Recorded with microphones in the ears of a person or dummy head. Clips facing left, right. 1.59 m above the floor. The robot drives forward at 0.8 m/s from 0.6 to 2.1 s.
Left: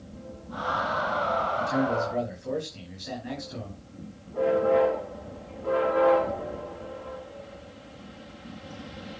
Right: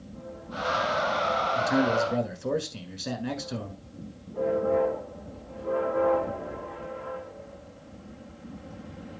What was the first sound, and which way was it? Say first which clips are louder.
A man speaking: right 3 dB; 85° right.